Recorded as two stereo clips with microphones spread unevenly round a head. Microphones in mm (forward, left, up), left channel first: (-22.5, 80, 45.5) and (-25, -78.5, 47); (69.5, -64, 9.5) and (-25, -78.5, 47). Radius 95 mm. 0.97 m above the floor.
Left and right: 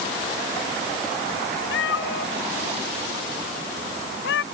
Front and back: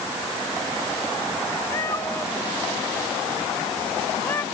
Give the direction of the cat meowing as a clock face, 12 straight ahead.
9 o'clock.